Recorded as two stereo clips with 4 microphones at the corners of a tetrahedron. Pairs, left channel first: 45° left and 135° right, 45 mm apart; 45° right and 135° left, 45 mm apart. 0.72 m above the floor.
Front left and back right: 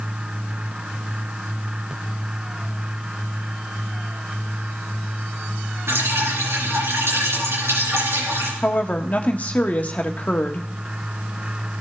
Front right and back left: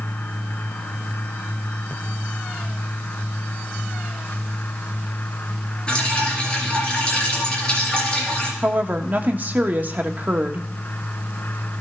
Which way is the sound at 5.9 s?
120° right.